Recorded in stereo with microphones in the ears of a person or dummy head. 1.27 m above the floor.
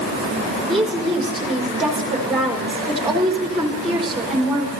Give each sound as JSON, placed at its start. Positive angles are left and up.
{"t": 0.7, "sound": "a woman speaking", "side_deg": 0, "distance_m": 5.0}